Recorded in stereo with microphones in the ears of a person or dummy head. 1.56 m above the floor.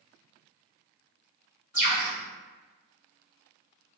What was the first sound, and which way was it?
A bird, 15° right (ahead or behind).